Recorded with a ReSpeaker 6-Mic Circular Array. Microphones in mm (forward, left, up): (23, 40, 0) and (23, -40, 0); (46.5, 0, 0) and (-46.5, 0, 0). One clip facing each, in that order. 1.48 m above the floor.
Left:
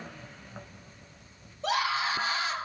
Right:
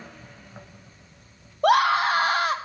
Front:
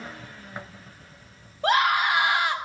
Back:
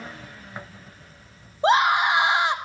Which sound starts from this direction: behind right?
A scream, at 1.6 s.